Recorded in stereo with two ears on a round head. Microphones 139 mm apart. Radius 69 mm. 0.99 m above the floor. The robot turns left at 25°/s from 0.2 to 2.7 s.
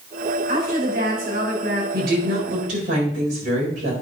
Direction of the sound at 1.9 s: 75° right (ahead or behind).